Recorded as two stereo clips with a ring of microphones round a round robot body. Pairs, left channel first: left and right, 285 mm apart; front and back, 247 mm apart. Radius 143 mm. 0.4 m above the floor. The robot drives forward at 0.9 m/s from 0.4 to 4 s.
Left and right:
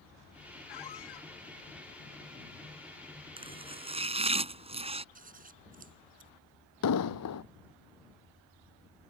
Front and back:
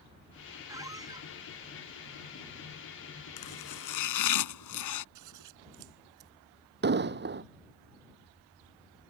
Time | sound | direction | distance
0.7 | a squeak | 100° left | ?
3.4 | chopping | 15° right | ?
5.2 | scissors | 155° right | ?
6.8 | an explosion | 130° left | ?